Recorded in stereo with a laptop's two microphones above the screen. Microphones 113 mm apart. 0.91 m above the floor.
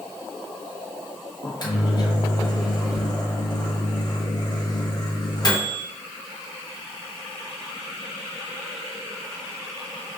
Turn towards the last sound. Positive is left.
turn(degrees=40)  # may be behind; listen again after turning